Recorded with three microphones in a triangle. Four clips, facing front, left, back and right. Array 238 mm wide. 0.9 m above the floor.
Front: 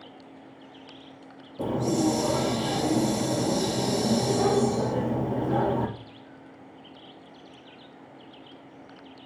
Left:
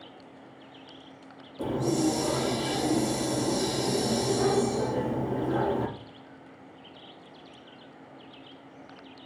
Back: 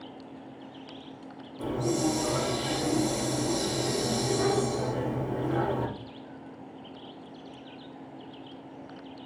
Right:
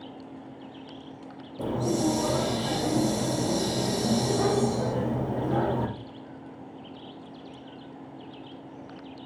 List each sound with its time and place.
1.6 s a hiss: 35° right, 2.5 m